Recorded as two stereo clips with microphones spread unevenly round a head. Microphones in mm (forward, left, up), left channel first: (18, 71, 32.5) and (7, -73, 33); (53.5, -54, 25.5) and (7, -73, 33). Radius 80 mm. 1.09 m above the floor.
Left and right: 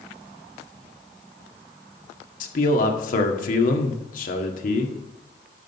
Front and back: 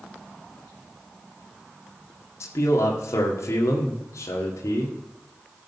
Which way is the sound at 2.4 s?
60° left.